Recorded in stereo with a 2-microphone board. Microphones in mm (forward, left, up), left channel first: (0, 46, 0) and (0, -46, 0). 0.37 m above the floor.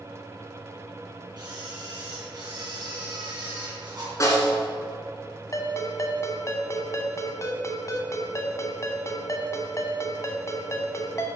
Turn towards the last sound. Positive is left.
turn(degrees=35)  # may be behind; listen again after turning